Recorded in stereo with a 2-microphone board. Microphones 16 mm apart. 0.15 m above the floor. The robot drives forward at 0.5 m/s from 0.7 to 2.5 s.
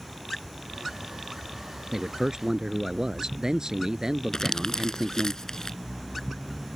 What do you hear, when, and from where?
1.9 s a man speaking: 45° right (ahead or behind); by 5.3 s 50° right (ahead or behind)
4.3 s crumpling: 45° left (ahead or behind)